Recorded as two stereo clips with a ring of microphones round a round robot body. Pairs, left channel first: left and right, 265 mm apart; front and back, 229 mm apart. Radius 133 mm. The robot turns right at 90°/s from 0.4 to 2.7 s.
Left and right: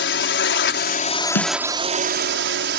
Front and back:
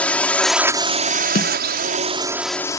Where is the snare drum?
50° left; by 1.5 s 70° left.